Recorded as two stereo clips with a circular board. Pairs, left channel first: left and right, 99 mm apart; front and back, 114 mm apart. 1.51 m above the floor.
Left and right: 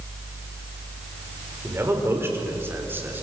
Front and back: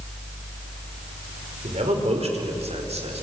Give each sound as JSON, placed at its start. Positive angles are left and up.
{"t": 1.6, "sound": "a man speaking", "azimuth_deg": -155, "distance_m": 5.0}